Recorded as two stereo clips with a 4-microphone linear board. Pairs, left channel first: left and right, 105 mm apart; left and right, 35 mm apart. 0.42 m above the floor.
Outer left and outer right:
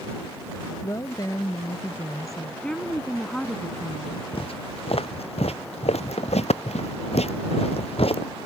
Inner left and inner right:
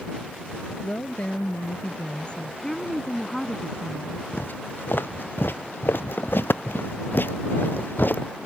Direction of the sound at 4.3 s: 60° left (ahead or behind).